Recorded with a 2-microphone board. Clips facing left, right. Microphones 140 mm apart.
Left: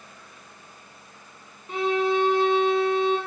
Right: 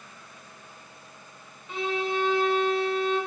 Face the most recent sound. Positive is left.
turn(degrees=45)  # may be behind; listen again after turning